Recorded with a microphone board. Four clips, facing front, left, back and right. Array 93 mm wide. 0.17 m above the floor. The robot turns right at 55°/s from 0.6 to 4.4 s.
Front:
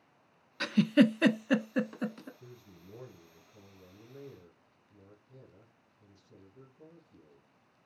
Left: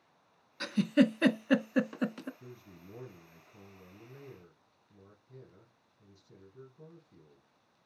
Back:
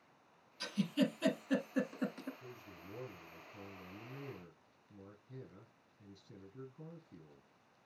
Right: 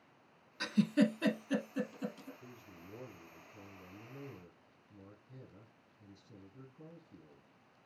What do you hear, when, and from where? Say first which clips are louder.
0.6 s a giggle: left 4 dB, front 11 dB; straight ahead, 0.5 m; by 2.3 s 95° left, 0.5 m
2.4 s a man speaking: left 2 dB, back 1 dB; 65° left, 3 m; by 7.9 s 175° left, 3 m